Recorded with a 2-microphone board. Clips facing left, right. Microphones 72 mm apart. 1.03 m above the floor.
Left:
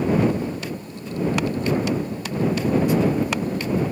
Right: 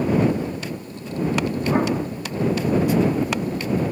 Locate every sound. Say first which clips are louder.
1.7 s an explosion: right 2 dB; 65° right (ahead or behind)